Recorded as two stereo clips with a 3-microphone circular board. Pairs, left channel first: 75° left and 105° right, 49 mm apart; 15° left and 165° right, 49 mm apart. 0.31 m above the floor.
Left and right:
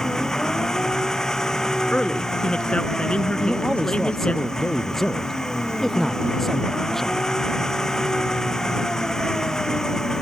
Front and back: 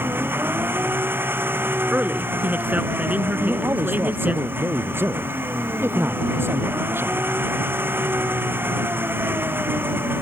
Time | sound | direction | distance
0.0 | an engine running | 155° left | ?
1.9 | a man speaking | 145° left | ?
3.4 | a man speaking | 160° left | ?